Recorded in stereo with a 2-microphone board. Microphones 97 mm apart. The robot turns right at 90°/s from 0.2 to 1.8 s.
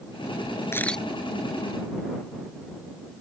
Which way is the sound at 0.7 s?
25° left (ahead or behind).